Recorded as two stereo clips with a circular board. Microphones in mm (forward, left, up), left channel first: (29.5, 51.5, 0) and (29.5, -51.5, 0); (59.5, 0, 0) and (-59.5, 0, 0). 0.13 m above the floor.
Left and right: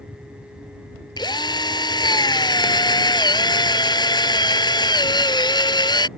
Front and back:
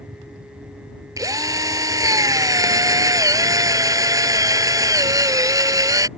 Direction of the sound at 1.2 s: 125° left.